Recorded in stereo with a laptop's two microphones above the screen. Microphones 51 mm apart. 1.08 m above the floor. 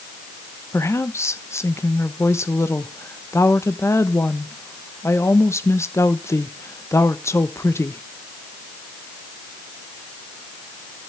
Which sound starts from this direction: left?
A woman speaking, at 0.7 s.